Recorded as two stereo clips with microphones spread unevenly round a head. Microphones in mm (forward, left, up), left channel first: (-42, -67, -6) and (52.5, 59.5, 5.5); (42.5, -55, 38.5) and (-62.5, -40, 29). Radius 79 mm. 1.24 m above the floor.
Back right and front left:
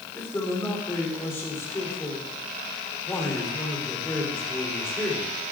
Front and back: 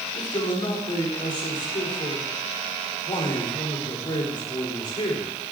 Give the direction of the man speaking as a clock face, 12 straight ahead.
2 o'clock.